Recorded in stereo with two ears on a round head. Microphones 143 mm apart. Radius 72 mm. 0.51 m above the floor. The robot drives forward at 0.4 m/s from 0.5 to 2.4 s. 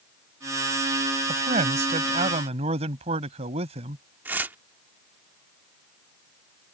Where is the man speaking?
45° right (ahead or behind); by 4.0 s 40° right (ahead or behind).